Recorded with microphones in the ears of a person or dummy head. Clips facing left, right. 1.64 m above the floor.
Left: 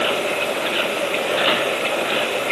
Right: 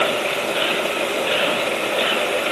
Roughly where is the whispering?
No whispering in this recording.